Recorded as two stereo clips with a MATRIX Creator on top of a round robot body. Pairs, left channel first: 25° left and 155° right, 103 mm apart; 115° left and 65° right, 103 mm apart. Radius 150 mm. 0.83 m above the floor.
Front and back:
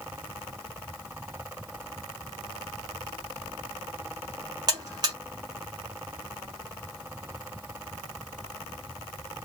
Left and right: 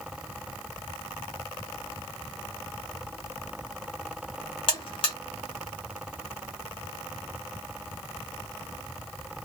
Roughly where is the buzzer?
Behind left.